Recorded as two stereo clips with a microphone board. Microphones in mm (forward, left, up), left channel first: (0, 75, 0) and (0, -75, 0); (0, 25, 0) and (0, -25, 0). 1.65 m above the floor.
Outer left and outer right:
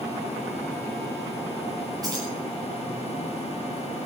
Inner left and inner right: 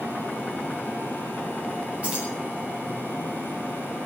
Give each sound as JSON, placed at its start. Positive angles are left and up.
{"t": 2.0, "sound": "keys jangling", "side_deg": -25, "distance_m": 10.0}